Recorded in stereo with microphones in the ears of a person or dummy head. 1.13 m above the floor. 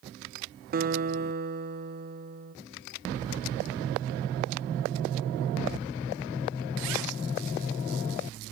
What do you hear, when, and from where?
0.7 s a guitar: 50° right (ahead or behind), 0.8 m